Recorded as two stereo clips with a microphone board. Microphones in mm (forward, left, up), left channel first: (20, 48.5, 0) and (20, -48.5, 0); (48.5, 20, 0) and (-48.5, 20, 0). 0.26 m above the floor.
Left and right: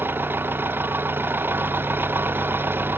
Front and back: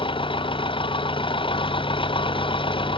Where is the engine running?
25° right.